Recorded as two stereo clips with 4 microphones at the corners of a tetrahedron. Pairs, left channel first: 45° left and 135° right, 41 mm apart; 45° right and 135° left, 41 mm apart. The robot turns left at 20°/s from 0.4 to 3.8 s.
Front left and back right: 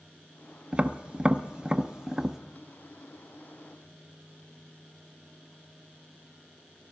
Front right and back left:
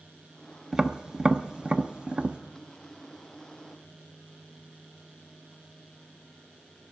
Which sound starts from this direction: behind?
Tapping, at 0.7 s.